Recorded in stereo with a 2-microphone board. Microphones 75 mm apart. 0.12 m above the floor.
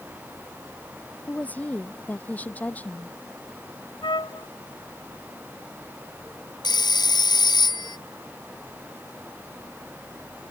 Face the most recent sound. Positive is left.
turn(degrees=65)  # may be behind; listen again after turning